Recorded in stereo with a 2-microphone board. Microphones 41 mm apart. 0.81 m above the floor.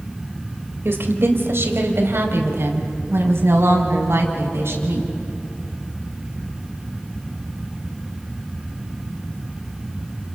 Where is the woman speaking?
70° right (ahead or behind), 3.5 m; by 5.1 s 85° right, 7 m.